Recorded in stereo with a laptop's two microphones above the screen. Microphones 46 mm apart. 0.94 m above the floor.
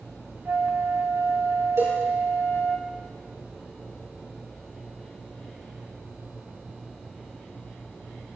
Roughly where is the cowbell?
Right.